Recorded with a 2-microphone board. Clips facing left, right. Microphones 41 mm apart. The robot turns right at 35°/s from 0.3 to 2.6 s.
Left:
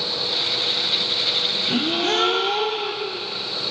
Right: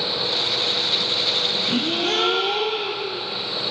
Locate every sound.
1.7 s a gasp: 175° left, 1.6 m; by 3.2 s 155° right, 1.6 m